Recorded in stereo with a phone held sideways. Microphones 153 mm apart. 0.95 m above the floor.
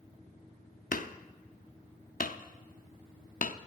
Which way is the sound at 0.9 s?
65° left (ahead or behind).